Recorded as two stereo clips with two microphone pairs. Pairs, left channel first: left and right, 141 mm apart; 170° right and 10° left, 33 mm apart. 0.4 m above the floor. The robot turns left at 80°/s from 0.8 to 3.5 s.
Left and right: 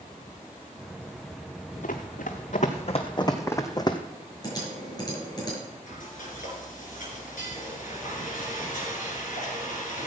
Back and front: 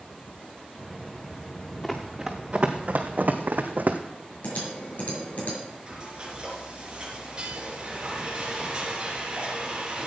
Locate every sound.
1.8 s running footsteps: 110° left, 1.7 m; by 4.0 s 35° left, 1.1 m
4.4 s typing on a keyboard: 150° left, 6 m
5.9 s frying: 75° left, 5 m